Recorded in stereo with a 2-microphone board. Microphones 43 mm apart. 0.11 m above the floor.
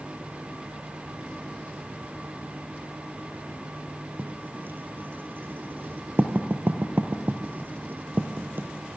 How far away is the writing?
About 2 m.